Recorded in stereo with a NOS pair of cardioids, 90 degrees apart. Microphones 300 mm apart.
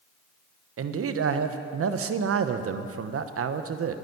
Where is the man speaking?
50° right, 1.0 m.